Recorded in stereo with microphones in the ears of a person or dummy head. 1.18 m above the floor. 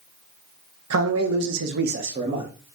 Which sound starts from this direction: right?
A man speaking, at 0.9 s.